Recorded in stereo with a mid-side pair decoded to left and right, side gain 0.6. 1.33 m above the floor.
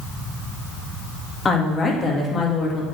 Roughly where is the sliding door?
I don't hear a sliding door.